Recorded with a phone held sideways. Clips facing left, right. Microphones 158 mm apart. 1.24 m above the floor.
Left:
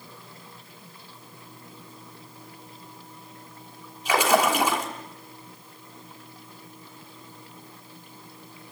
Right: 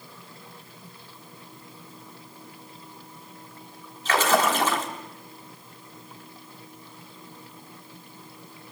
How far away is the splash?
About 3.5 m.